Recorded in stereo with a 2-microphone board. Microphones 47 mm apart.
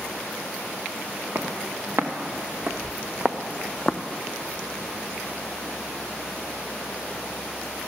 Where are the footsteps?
60° right (ahead or behind), 1.8 m; by 4.0 s 15° left (ahead or behind), 0.6 m.